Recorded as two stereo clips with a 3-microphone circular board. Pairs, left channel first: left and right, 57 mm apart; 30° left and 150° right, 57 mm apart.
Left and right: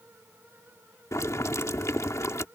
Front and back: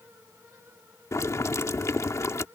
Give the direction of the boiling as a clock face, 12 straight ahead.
10 o'clock.